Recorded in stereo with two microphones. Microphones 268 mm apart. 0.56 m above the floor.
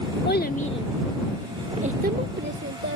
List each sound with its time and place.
0.2 s a child speaking: 40° left (ahead or behind); by 3.0 s 50° right (ahead or behind)